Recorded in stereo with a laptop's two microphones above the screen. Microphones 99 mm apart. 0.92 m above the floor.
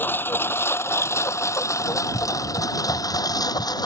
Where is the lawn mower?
20° left (ahead or behind); by 3.9 s 40° left (ahead or behind).